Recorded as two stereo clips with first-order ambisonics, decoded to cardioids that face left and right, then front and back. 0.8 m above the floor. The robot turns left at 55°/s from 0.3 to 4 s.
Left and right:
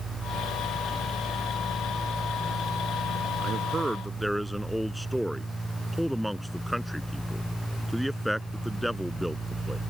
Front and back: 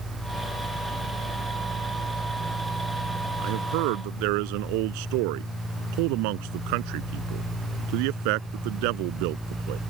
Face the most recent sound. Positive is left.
turn(degrees=180)